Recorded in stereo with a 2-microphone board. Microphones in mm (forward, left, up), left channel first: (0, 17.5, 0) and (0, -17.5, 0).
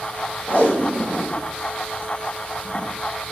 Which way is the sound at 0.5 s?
50° left (ahead or behind).